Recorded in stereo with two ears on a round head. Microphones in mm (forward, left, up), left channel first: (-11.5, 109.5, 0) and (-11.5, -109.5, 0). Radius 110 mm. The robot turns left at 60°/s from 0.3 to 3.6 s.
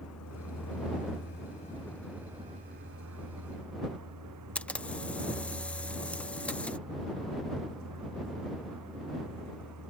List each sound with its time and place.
0.0 s a vehicle: 105° left; by 9.9 s 90° right
4.5 s a camera shutter: 5° left (ahead or behind)